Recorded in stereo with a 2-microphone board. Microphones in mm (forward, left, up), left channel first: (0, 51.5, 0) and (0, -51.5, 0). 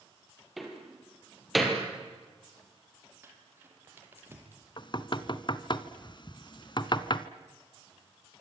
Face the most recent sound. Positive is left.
turn(degrees=50)  # may be behind; listen again after turning